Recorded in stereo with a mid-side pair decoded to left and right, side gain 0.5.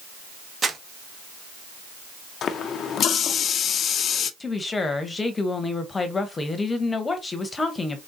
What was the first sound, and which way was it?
Crumpling, 40° right.